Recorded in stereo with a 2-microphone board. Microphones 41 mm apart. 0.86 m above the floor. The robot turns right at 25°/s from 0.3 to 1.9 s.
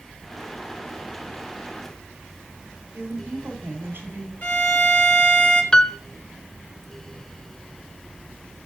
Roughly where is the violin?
Left.